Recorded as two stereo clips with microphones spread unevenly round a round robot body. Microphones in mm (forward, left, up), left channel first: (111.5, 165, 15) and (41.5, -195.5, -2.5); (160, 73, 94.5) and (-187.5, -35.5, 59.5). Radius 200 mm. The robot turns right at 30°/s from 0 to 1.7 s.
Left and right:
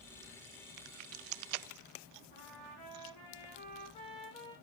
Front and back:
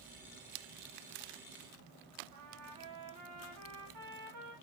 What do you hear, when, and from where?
2.3 s a trumpet: 155° left, 5.5 m